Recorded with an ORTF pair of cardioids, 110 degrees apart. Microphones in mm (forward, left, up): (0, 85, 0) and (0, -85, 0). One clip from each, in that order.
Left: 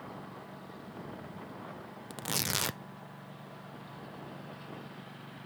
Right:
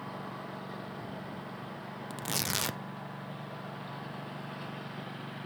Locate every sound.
0.0 s a lawn mower: 40° right; by 5.5 s 35° right
2.1 s tearing paper: straight ahead